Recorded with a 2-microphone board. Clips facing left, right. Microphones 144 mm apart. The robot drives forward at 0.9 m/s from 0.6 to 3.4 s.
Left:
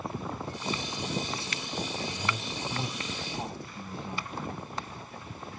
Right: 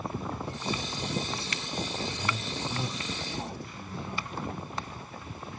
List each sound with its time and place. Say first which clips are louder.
2.1 s a man speaking: even; 30° left (ahead or behind), 4 m; by 4.3 s 20° left (ahead or behind), 5 m